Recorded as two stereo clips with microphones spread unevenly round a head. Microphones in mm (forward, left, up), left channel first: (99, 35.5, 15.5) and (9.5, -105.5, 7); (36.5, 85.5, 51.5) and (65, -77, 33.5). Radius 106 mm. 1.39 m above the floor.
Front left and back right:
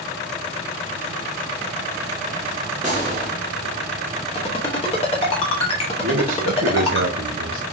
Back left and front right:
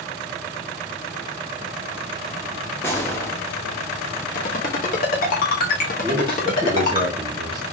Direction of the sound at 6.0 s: 150° right.